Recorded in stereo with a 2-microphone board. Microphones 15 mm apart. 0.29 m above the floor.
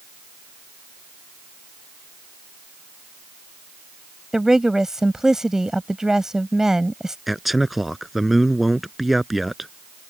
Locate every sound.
4.3 s a woman speaking: 35° right (ahead or behind)
7.3 s a man speaking: 10° right (ahead or behind)